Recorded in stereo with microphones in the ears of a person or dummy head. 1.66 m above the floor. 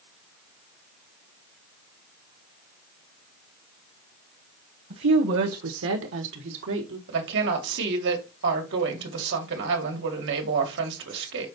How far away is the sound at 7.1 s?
About 2 m.